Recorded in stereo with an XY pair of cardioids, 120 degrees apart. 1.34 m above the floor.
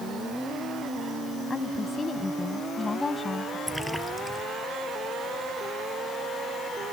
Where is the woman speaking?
30° left.